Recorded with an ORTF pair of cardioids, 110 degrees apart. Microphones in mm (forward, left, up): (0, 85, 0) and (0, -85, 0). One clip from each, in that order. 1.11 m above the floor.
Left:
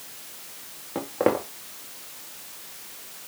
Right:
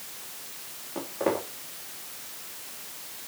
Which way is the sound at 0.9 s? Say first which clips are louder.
Left 5 dB; 60° left.